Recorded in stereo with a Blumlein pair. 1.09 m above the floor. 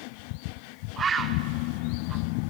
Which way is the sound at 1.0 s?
20° right.